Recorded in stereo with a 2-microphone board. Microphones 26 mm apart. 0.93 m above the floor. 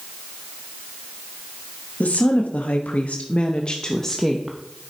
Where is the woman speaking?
65° left (ahead or behind), 1.5 m; by 4.6 s centre (ahead or behind), 1.1 m.